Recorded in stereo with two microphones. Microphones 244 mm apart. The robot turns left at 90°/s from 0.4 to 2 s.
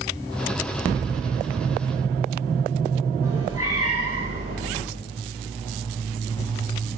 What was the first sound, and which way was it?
A cat meowing, 65° right (ahead or behind).